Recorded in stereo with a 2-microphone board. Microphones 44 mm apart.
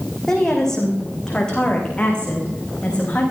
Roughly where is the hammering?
No hammering in this recording.